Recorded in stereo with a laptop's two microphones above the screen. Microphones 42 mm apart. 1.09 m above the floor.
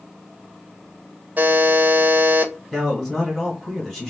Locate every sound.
1.4 s a buzzer: 40° right (ahead or behind), 0.5 m
2.7 s a man speaking: 10° left (ahead or behind), 1.3 m